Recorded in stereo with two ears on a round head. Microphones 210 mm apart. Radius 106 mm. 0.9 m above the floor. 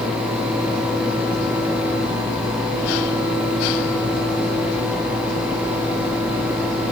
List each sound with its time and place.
Only background noise.